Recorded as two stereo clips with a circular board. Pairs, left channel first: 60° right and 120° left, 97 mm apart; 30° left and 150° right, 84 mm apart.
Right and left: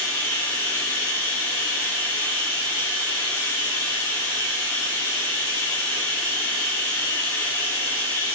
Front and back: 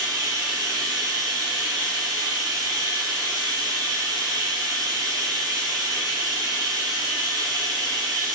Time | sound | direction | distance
0.0 | running water | 120° right | 1.1 m